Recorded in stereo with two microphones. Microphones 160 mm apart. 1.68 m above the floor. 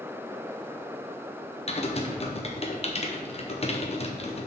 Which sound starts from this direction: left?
Typing on a keyboard, at 1.7 s.